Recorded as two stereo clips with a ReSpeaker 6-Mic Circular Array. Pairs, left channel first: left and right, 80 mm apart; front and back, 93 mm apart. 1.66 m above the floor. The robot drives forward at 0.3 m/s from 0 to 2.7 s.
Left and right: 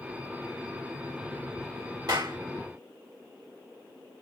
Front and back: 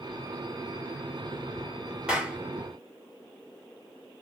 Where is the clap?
100° right, 1.6 m; by 2.4 s 105° right, 1.6 m.